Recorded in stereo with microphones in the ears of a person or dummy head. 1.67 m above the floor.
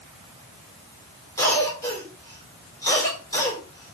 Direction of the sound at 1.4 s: 15° left (ahead or behind).